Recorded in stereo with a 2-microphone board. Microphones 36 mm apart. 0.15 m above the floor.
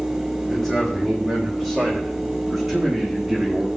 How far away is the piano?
I don't hear a piano.